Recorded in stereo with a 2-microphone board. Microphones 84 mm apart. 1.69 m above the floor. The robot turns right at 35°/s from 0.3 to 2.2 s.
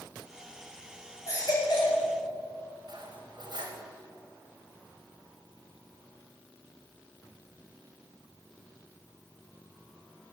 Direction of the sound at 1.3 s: 40° left (ahead or behind).